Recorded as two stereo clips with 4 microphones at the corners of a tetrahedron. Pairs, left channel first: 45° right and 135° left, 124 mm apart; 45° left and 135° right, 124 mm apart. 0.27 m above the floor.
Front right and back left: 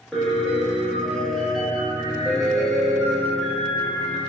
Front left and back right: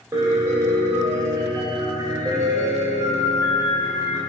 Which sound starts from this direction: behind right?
A piano, at 0.1 s.